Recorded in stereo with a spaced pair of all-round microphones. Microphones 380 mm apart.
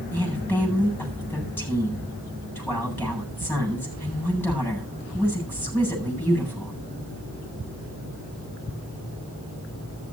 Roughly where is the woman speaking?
Centre.